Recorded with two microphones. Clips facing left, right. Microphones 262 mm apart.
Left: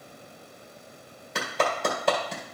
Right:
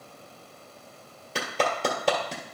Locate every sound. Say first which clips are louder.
1.4 s a clap: even; 35° right (ahead or behind), 2.0 m